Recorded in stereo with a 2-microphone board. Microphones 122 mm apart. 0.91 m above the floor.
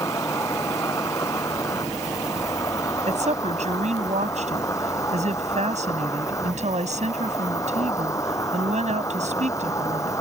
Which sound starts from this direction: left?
An insect, at 0.0 s.